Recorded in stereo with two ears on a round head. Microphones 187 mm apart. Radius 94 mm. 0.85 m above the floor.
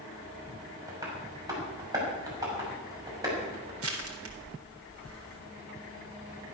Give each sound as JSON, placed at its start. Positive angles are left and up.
{"t": 0.9, "sound": "tapping", "side_deg": -15, "distance_m": 6.0}
{"t": 3.8, "sound": "crushing", "side_deg": -70, "distance_m": 4.0}